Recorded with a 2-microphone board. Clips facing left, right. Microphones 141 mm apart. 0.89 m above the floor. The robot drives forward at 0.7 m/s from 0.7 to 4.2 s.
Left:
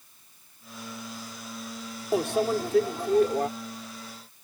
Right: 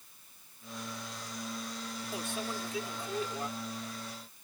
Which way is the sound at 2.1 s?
70° left (ahead or behind).